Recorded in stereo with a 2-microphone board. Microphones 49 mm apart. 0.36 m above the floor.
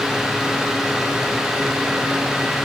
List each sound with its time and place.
Only background noise.